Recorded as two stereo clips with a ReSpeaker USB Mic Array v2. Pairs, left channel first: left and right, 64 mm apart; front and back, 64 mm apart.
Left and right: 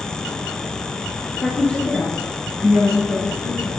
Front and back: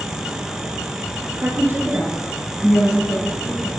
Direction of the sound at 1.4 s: 150° left.